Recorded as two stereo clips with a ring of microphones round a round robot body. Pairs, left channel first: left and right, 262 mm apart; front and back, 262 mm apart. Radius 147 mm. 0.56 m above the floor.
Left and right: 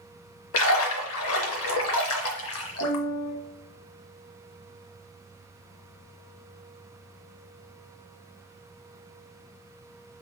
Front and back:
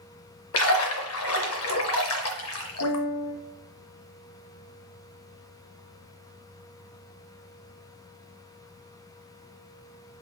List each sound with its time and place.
0.5 s a splash: 45° left, 0.5 m
2.8 s a piano: 50° left, 0.8 m